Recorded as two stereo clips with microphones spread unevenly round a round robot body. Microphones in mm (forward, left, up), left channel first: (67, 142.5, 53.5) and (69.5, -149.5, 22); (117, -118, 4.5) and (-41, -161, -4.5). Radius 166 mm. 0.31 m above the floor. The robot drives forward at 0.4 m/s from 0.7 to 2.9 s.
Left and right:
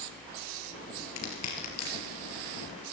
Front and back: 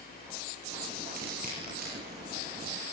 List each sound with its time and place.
1.2 s crushing: 135° left, 5 m; by 2.8 s 140° left, 5.5 m